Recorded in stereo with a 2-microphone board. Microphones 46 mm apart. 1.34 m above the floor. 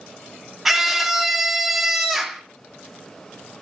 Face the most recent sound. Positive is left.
turn(degrees=-10)  # may be behind; listen again after turning